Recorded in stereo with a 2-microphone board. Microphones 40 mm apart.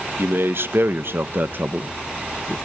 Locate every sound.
0.2 s a man speaking: 60° right (ahead or behind), 1.2 m; by 2.5 s 15° right (ahead or behind), 1.0 m